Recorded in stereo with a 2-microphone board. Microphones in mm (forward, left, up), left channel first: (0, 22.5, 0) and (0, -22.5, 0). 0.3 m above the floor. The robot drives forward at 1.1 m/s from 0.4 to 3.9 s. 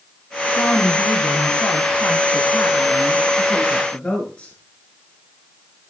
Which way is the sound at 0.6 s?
60° left (ahead or behind).